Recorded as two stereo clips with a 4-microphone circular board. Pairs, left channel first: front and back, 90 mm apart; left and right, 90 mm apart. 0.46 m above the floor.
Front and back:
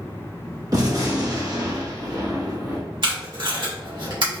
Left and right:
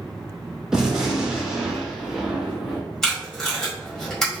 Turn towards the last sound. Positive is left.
turn(degrees=175)